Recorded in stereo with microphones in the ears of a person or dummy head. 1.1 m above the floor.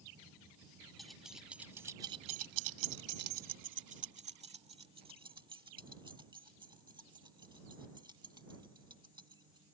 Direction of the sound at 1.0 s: Centre (ahead or behind).